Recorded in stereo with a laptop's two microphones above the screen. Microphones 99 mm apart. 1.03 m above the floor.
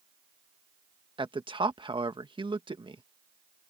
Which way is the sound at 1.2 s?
55° right (ahead or behind).